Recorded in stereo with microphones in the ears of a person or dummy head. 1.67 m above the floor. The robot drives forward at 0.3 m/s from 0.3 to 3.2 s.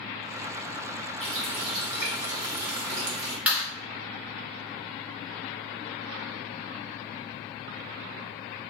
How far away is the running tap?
About 1.6 m.